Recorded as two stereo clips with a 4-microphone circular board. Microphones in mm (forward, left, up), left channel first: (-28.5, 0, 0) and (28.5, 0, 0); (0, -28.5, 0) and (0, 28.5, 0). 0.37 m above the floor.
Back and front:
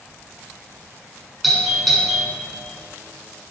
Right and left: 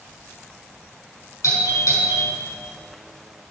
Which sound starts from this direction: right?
A doorbell, at 1.4 s.